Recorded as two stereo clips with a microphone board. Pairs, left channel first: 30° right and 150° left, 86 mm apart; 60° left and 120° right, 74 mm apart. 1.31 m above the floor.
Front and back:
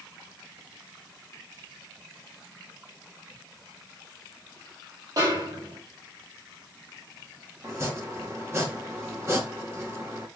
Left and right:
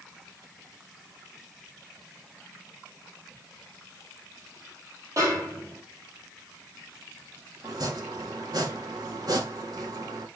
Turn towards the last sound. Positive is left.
turn(degrees=-150)